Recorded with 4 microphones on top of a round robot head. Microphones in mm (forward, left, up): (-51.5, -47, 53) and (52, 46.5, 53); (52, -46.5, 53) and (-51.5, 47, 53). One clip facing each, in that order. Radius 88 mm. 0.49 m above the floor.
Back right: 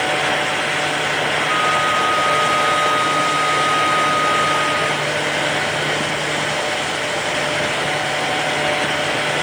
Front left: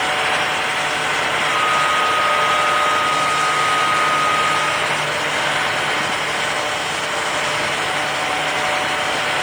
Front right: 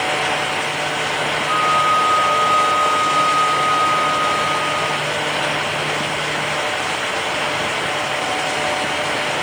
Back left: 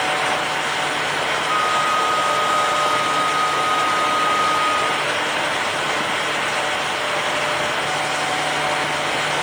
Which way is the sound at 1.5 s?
150° right.